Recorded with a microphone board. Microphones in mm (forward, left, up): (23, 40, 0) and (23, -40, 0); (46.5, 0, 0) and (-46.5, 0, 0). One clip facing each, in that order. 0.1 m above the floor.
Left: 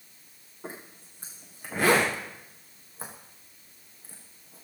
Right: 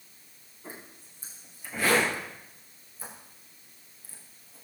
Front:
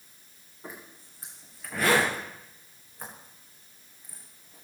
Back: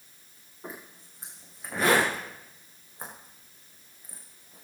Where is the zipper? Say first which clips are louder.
Left 4 dB, back 2 dB; 110° left, 6.5 m.